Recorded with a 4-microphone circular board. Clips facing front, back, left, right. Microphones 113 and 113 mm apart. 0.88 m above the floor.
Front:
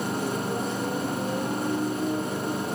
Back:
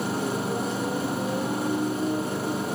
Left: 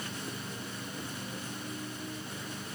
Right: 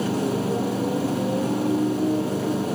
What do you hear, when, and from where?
0.0 s a motorcycle: 95° right